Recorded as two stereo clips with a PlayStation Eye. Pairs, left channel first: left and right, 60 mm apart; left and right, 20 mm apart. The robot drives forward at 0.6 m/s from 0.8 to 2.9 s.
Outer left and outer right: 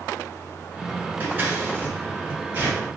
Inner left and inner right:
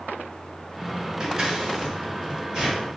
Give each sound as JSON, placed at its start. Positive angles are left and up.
{"t": 1.2, "sound": "scissors", "side_deg": -30, "distance_m": 1.5}